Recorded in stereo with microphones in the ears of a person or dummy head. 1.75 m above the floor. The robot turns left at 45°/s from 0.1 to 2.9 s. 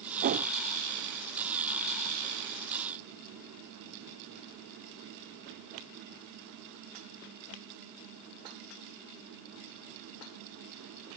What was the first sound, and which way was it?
A whoosh, 45° right (ahead or behind).